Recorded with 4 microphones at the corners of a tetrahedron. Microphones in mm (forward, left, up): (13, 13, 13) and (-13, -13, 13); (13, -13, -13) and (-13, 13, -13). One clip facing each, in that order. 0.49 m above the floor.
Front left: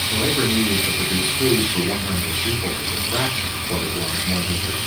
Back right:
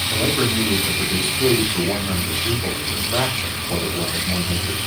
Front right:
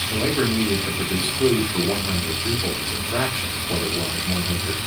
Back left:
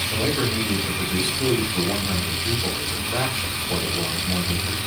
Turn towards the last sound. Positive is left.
turn(degrees=-15)